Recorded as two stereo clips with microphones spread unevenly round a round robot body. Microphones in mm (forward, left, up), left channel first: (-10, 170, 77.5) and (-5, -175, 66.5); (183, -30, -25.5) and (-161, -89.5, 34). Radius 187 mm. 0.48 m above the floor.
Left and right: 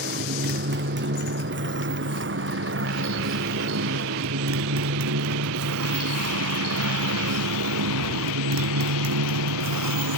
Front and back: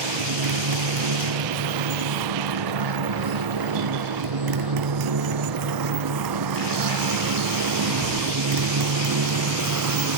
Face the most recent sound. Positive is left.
turn(degrees=-130)